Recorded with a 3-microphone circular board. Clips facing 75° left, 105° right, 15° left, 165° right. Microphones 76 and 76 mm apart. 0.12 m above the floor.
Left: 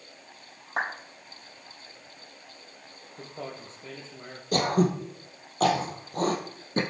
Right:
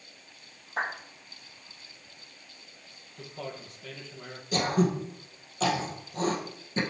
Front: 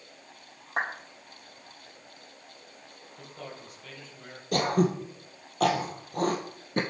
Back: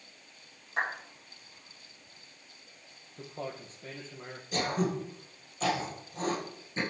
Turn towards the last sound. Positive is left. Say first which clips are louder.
# left 2 dB, front 6 dB
turn(degrees=35)